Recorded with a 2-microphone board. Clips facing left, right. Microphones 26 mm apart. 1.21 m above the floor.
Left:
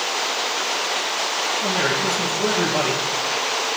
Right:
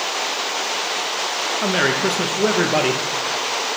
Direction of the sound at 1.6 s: 65° right (ahead or behind).